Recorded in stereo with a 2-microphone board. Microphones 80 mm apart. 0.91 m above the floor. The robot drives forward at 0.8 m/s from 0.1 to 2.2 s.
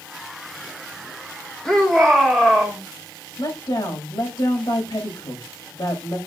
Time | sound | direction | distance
1.6 | a shout | 5° left (ahead or behind) | 2.5 m
3.4 | a woman speaking | 70° left (ahead or behind) | 5 m